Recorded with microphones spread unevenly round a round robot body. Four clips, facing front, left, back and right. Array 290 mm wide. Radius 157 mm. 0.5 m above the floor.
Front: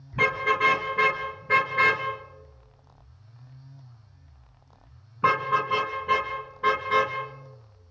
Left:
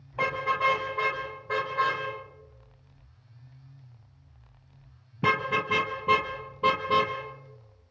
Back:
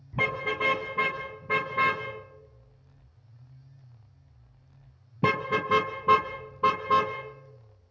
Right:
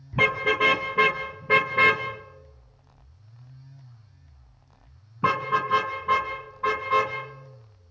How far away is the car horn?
About 5 m.